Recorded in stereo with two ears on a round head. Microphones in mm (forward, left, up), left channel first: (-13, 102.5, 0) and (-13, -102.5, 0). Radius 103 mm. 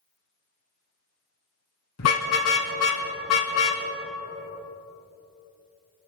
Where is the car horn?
70° left (ahead or behind), 3 m.